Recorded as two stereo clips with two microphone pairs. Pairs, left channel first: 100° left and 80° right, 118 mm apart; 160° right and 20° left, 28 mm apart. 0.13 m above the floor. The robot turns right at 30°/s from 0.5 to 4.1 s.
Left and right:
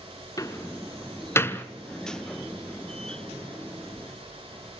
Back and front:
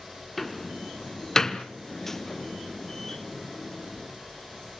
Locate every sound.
0.4 s a door slam: 120° left, 1.0 m; by 1.6 s 155° left, 1.0 m